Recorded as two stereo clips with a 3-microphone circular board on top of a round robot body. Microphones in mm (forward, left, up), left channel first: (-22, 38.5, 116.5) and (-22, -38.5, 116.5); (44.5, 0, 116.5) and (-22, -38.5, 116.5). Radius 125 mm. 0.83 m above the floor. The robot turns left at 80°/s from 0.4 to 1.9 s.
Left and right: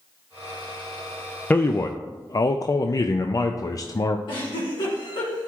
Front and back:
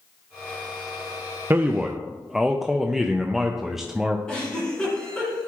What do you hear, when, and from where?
1.5 s a man speaking: 160° left, 0.5 m; by 4.2 s 125° left, 0.5 m
4.3 s a giggle: 110° left, 2 m